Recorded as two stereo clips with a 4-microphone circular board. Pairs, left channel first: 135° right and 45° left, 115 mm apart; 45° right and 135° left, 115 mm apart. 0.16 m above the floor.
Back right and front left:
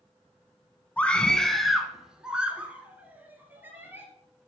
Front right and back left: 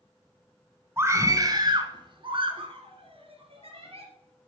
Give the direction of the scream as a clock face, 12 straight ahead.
7 o'clock.